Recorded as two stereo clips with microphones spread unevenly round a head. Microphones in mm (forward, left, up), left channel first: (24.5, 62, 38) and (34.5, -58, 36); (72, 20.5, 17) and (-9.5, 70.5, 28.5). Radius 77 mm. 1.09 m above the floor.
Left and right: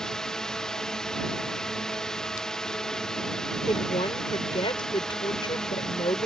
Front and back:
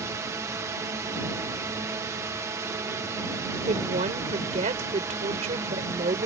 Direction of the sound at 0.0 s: 175° left.